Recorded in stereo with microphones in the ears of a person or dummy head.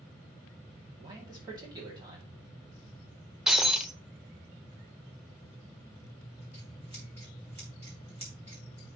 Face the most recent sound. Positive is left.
turn(degrees=-30)  # may be behind; listen again after turning